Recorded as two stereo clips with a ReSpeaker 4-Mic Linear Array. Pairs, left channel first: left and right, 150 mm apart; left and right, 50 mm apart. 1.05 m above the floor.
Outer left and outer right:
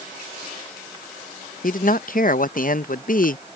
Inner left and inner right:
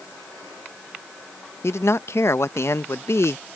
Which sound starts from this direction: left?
A man speaking, at 1.6 s.